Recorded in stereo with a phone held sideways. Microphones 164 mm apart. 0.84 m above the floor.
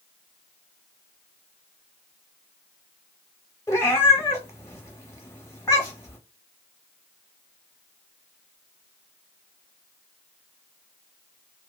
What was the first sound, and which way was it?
A cat meowing, 15° left (ahead or behind).